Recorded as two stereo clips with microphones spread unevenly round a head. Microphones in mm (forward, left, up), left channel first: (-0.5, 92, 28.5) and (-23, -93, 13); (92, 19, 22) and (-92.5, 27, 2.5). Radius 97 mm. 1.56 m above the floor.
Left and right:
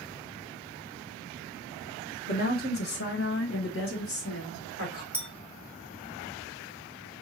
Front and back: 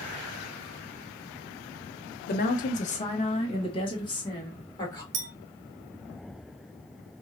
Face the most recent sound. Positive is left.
turn(degrees=160)